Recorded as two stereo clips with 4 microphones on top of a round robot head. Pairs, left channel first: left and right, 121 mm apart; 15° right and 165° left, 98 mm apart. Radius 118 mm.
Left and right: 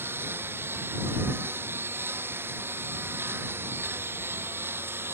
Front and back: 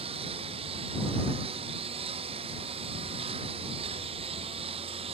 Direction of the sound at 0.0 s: 160° right.